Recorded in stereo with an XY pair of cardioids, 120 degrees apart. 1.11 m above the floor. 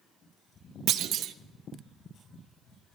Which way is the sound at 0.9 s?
65° right.